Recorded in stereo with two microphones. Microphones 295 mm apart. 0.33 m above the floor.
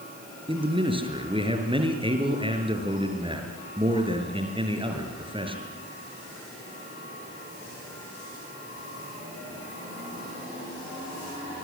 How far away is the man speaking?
About 5 m.